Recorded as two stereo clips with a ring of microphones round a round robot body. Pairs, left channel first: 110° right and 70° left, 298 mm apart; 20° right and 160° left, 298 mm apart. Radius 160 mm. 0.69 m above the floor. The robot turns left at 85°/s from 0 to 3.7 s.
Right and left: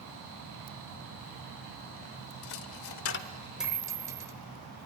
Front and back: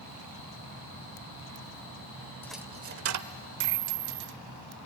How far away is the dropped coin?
About 0.8 m.